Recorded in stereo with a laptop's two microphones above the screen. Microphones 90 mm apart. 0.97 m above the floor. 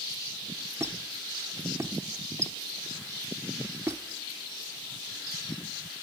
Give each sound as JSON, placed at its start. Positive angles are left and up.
{"t": 0.8, "sound": "a squeak", "side_deg": -30, "distance_m": 0.9}